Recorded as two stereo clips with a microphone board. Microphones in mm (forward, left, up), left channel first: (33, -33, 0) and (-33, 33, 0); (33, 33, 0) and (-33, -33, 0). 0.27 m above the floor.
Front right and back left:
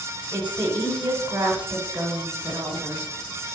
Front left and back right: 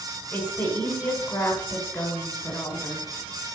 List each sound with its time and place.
0.3 s a woman speaking: 75° left, 1.7 m